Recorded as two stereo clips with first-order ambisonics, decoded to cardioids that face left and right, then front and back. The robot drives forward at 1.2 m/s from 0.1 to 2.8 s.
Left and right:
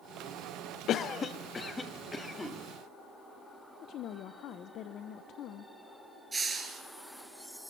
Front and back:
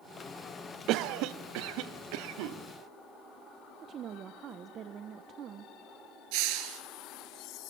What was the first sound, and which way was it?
A cough, 140° left.